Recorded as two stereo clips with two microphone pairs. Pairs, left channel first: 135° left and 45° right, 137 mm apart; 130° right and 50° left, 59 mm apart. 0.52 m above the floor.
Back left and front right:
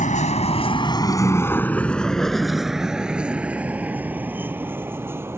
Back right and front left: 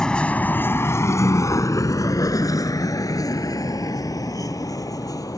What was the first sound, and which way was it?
A vehicle, 150° left.